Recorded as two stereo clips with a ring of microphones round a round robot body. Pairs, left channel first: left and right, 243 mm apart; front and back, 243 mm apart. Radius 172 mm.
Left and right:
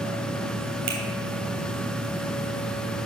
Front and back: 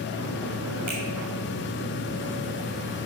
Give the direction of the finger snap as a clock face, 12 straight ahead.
4 o'clock.